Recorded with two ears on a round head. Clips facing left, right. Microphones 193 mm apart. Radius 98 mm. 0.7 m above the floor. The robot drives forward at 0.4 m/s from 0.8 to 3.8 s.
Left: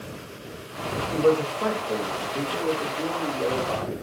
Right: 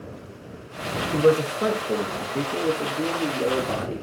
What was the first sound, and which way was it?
A man speaking, 25° right (ahead or behind).